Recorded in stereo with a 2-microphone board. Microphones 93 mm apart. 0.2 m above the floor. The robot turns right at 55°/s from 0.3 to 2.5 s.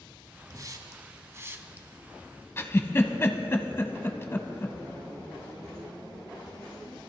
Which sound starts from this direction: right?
A hiss, at 0.5 s.